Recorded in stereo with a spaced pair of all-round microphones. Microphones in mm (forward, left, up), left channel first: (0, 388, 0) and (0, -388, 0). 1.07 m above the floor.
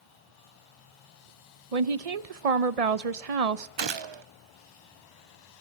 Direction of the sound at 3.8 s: 40° right (ahead or behind).